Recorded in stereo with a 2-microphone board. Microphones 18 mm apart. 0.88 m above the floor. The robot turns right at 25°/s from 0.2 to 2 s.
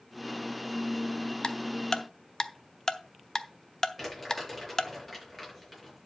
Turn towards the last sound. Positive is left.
turn(degrees=15)  # may be behind; listen again after turning